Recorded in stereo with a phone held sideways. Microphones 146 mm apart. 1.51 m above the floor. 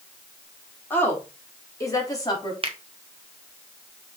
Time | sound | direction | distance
0.9 | a woman speaking | 10° left (ahead or behind) | 3 m
2.6 | a finger snap | 40° right (ahead or behind) | 1.2 m